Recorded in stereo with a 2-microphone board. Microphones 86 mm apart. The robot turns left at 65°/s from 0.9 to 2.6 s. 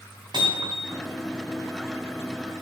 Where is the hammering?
65° right (ahead or behind), 5.5 m; by 1.0 s 75° right (ahead or behind), 5.5 m.